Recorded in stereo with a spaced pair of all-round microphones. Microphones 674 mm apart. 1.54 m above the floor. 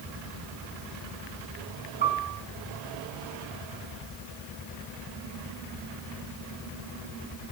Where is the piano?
45° right (ahead or behind), 5.5 m.